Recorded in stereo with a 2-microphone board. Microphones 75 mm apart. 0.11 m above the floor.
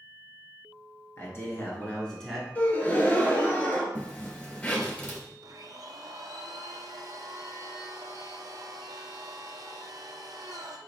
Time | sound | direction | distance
1.2 | a man speaking | 40° left (ahead or behind) | 1.5 m
2.5 | a gasp | 25° left (ahead or behind) | 0.8 m
4.0 | a zipper | 20° left (ahead or behind) | 1.2 m
5.4 | a blender | 60° right (ahead or behind) | 0.5 m